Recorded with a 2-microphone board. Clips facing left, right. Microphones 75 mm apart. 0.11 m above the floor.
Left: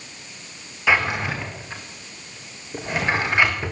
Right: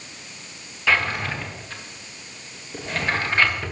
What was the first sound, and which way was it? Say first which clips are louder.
A drawer: left 2 dB; 15° left (ahead or behind).